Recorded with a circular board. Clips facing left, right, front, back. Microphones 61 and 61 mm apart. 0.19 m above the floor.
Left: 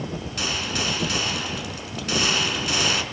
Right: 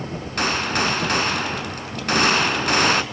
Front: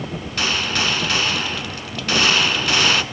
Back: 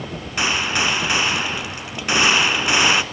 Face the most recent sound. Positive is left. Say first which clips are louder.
# right 7 dB, back 2 dB
turn(degrees=-115)